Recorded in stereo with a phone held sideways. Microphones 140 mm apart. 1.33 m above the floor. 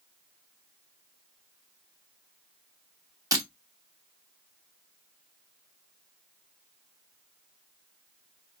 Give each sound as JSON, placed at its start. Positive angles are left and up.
{"t": 3.3, "sound": "breaking glass", "side_deg": -25, "distance_m": 1.0}